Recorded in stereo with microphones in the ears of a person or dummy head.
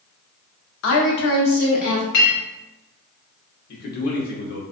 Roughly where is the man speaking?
Left.